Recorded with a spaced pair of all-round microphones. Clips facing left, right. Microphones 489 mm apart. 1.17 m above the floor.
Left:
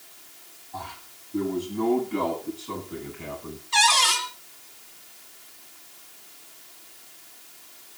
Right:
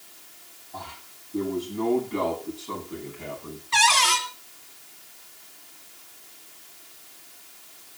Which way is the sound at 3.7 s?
70° right (ahead or behind).